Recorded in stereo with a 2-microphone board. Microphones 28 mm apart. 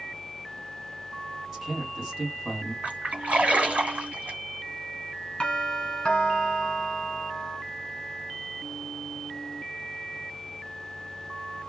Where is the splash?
55° right (ahead or behind), 2.0 m.